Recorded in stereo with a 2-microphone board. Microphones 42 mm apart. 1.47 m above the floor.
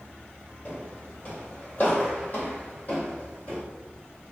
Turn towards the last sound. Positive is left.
turn(degrees=35)  # may be behind; listen again after turning